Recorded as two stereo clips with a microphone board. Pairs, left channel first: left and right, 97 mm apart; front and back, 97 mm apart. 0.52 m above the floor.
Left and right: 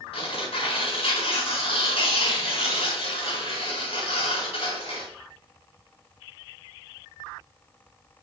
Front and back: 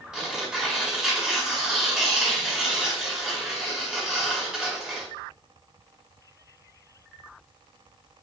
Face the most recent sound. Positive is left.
turn(degrees=95)